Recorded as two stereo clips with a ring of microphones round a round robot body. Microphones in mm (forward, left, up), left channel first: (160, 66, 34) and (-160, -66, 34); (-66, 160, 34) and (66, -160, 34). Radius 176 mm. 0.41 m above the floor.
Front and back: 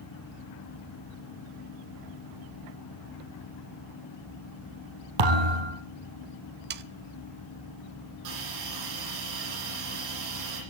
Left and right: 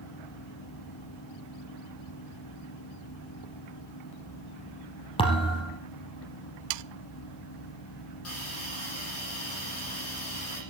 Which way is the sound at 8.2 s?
165° left.